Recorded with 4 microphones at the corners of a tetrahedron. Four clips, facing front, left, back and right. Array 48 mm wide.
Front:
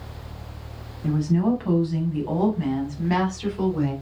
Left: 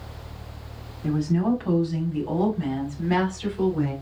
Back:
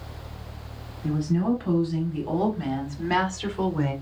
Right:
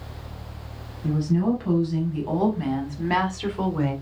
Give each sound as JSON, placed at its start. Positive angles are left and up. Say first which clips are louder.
{"t": 1.0, "sound": "a woman speaking", "louder": "even, front 3 dB", "azimuth_deg": 40, "distance_m": 1.1}